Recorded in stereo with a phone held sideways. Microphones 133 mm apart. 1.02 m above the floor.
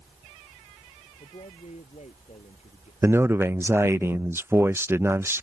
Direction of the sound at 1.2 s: 60° left (ahead or behind).